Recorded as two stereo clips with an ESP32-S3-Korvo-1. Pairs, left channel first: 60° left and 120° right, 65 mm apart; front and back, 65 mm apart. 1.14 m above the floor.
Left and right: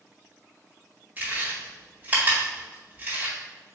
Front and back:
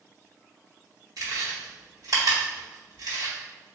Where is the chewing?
Straight behind, 1.8 m.